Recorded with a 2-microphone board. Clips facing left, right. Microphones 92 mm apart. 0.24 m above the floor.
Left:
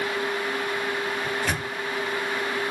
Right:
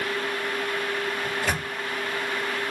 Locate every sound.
1.2 s a microwave: 10° right (ahead or behind), 2 m